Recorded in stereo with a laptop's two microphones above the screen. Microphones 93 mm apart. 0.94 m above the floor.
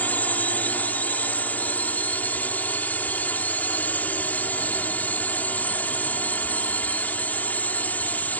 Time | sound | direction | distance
0.0 | a drone | 15° left (ahead or behind) | ?